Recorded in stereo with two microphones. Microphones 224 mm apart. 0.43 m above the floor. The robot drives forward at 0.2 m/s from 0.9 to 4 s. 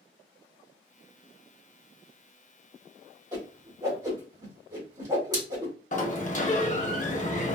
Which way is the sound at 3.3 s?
15° right (ahead or behind).